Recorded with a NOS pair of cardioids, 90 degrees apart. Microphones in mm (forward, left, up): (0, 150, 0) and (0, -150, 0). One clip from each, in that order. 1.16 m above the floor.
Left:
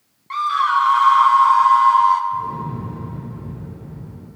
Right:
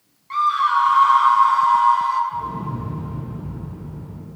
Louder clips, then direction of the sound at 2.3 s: Left 2 dB; 15° right.